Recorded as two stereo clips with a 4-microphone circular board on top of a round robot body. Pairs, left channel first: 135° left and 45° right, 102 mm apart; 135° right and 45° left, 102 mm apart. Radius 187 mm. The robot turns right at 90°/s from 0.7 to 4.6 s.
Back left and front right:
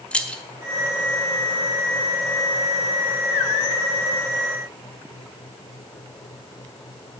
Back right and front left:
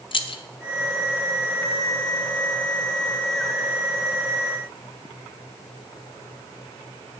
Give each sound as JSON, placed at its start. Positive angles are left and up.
{"t": 0.1, "sound": "keys jangling", "azimuth_deg": -150, "distance_m": 0.7}